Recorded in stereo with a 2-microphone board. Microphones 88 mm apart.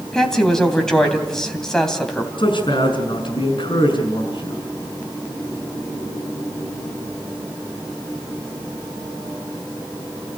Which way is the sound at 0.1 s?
5° left (ahead or behind).